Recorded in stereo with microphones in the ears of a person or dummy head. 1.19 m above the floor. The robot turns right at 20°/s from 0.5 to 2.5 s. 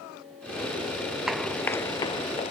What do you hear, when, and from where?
1.3 s running footsteps: centre (ahead or behind); by 2.5 s 40° left (ahead or behind)